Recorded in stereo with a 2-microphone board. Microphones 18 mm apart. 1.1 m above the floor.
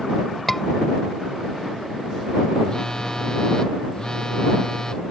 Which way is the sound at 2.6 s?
40° left (ahead or behind).